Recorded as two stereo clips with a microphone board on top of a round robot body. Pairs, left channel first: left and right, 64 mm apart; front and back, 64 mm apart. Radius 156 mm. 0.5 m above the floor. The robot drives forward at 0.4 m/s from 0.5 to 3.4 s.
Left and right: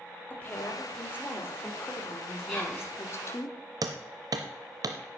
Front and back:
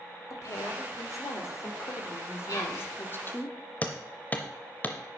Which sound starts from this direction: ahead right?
Hammering, at 3.8 s.